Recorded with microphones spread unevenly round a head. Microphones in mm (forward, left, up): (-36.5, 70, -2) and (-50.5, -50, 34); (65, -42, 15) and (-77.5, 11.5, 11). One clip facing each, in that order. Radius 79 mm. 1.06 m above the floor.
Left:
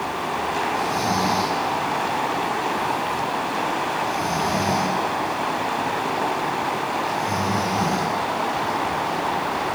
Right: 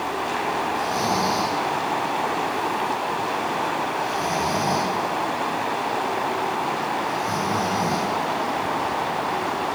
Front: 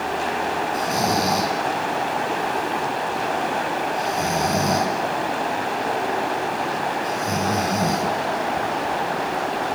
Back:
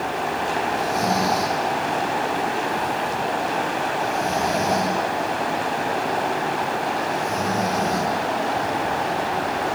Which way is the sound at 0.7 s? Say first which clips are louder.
Left 1 dB, even; 10° right.